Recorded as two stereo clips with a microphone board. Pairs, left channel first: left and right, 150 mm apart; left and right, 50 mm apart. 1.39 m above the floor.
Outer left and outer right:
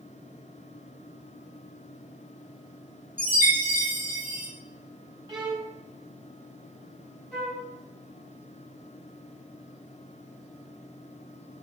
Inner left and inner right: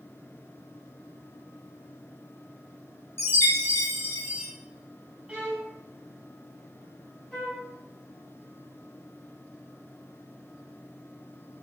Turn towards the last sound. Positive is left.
turn(degrees=10)  # may be behind; listen again after turning